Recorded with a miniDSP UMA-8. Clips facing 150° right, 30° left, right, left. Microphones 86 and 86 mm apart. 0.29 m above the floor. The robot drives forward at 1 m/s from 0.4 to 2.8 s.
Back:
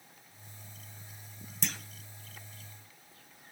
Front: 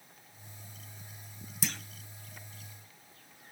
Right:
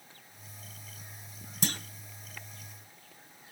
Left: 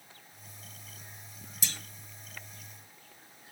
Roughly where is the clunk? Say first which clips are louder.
Front 1 dB, right 9 dB; ahead right.